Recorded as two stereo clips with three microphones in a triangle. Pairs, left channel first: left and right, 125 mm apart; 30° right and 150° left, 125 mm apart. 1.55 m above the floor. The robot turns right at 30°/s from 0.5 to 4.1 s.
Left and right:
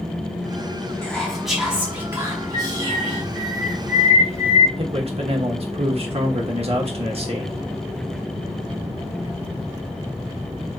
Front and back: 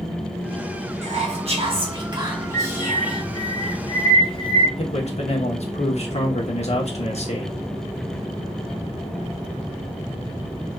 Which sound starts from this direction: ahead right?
A man speaking, at 4.8 s.